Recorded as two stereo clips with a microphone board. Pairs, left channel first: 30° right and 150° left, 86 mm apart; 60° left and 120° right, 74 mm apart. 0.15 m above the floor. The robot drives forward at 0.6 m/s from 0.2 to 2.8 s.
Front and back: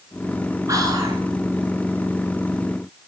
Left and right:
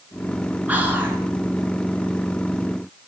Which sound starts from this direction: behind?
Whispering, at 0.7 s.